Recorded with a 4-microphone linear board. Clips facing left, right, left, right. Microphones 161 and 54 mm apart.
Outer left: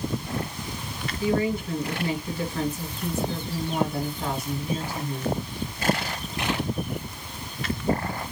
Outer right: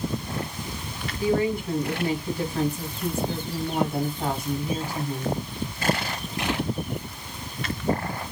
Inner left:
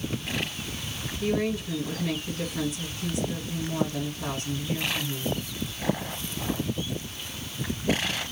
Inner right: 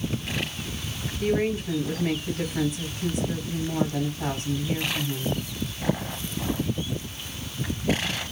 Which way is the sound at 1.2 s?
25° right (ahead or behind).